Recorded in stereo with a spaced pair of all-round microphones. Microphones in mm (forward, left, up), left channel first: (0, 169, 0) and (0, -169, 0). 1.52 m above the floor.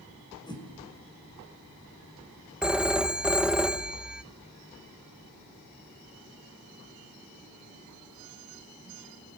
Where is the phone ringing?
5° right (ahead or behind), 0.7 m.